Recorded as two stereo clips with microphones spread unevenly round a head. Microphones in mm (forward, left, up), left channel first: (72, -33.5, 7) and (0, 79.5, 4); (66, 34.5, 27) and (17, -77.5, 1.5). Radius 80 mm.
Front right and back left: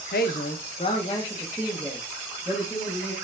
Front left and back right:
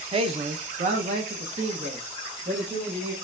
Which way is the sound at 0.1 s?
80° right.